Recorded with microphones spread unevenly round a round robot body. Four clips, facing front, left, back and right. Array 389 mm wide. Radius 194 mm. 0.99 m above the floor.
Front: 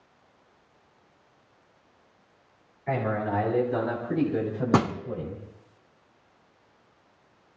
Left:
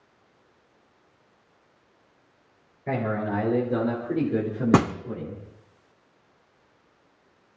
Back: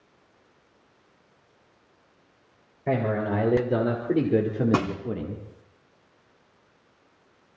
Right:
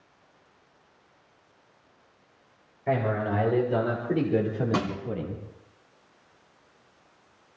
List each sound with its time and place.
2.9 s a man speaking: 175° left, 3.5 m; by 5.4 s 170° right, 1.7 m
4.7 s crushing: 75° left, 0.8 m